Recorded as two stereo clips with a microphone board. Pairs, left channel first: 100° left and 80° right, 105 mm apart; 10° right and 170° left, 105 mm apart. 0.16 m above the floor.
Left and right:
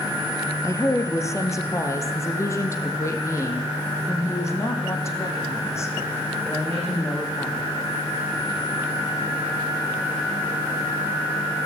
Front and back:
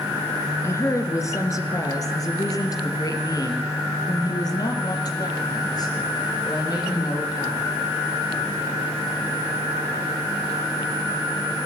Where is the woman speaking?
45° left, 2 m; by 7.7 s 35° left, 7 m.